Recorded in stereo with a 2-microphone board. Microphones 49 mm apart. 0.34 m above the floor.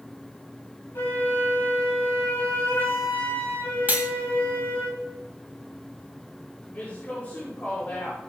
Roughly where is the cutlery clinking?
Right.